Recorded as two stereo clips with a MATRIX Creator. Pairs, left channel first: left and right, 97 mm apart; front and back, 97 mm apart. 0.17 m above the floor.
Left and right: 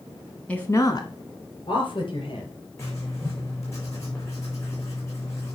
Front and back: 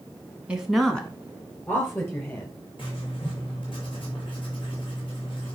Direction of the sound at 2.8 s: 30° left.